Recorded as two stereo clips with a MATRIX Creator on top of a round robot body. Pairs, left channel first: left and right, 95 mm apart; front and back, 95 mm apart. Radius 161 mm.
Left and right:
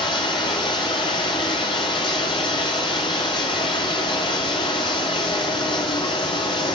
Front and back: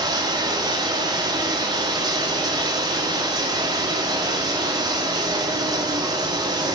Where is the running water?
130° left, 0.8 m.